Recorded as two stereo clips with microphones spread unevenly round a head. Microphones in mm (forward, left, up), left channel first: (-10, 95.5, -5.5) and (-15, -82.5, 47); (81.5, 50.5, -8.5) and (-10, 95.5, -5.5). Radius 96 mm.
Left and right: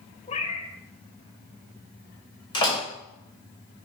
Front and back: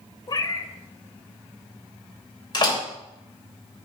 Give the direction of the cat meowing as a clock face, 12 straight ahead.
11 o'clock.